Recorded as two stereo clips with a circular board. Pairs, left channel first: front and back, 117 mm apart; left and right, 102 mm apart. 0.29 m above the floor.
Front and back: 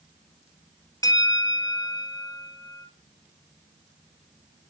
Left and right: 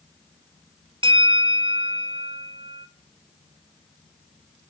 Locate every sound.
1.0 s a bell: 60° right, 1.1 m